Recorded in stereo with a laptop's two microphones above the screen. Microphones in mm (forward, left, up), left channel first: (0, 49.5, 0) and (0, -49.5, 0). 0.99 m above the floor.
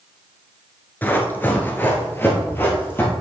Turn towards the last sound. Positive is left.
turn(degrees=20)  # may be behind; listen again after turning